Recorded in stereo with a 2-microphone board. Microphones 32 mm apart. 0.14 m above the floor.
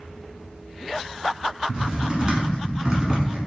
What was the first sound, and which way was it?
Typing on a keyboard, 25° right (ahead or behind).